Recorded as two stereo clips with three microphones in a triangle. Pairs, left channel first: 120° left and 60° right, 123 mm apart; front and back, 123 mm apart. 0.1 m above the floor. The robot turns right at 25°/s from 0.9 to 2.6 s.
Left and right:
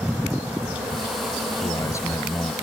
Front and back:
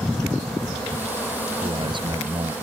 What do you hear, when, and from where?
1.6 s a man speaking: 165° left; by 2.5 s 175° right